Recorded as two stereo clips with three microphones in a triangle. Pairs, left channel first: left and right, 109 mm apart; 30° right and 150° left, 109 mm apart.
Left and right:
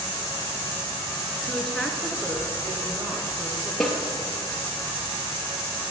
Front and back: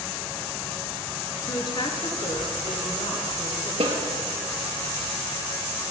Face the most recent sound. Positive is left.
turn(degrees=175)